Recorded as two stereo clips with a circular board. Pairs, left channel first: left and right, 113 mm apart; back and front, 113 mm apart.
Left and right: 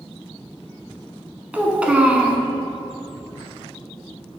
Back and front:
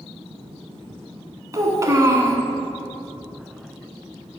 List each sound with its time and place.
1.5 s a child speaking: 25° right, 0.9 m